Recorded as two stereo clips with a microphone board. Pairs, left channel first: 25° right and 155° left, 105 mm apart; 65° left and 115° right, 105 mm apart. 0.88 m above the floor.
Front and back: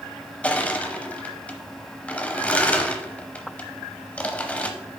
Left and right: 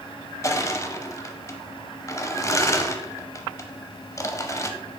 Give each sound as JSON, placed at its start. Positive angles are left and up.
{"t": 0.4, "sound": "crushing", "azimuth_deg": 45, "distance_m": 0.7}